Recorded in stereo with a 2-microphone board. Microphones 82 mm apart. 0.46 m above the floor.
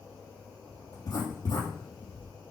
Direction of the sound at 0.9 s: 45° left (ahead or behind).